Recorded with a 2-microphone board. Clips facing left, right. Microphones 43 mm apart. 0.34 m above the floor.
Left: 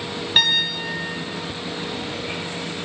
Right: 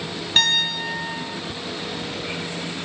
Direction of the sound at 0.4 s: 10° left (ahead or behind).